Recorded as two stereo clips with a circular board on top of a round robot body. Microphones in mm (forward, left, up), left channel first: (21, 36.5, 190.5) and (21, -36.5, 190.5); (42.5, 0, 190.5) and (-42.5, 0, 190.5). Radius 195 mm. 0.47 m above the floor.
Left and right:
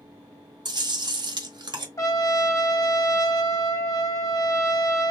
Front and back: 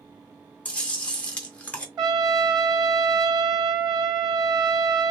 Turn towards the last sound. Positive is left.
turn(degrees=135)